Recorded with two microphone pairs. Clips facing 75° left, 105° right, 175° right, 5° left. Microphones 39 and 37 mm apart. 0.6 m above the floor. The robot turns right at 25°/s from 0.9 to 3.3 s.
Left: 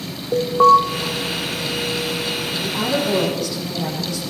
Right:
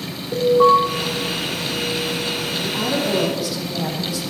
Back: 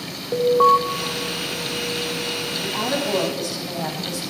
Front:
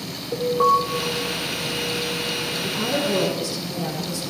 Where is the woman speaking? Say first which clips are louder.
Left 1 dB, even; 160° left, 5 m; by 4.2 s 175° left, 5 m.